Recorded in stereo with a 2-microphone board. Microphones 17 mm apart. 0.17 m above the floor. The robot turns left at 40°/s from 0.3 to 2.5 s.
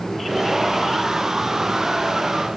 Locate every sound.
Only background noise.